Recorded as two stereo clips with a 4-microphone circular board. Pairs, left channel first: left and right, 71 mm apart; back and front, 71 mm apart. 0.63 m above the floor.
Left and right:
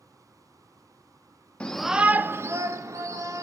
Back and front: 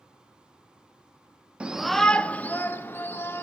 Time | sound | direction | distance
1.6 | a shout | 45° left | 0.5 m